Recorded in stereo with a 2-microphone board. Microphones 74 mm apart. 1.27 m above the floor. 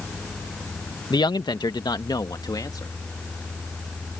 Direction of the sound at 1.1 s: 80° left.